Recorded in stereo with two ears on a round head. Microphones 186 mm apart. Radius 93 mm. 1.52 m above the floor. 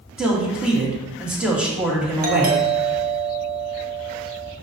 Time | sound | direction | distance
0.2 | a man speaking | 5° right (ahead or behind) | 1.9 m
2.2 | a doorbell | 45° right (ahead or behind) | 1.3 m